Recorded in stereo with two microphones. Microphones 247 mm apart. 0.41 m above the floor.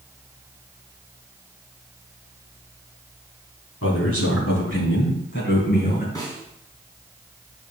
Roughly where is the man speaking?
Left.